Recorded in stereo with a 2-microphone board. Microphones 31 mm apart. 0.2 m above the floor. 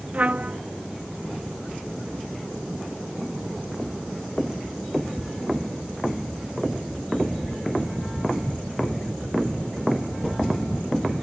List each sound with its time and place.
0.1 s a trumpet: 45° right (ahead or behind)